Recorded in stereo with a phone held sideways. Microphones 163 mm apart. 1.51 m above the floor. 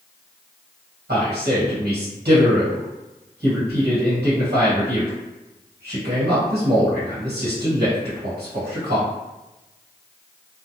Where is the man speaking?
85° right, 1.4 m.